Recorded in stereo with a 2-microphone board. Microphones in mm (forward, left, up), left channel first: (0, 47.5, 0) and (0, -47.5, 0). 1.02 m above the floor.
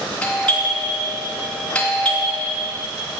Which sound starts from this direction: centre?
A doorbell, at 0.2 s.